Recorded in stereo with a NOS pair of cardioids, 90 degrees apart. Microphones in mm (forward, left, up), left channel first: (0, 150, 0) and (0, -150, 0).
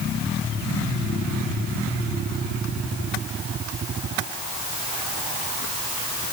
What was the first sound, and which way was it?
Only background noise.